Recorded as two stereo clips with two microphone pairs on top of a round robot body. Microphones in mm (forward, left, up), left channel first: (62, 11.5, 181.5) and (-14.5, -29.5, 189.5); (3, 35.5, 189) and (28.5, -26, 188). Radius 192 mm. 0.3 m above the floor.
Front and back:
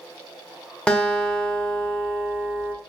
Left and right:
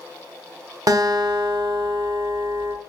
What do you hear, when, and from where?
0.9 s a guitar: 45° right, 1.1 m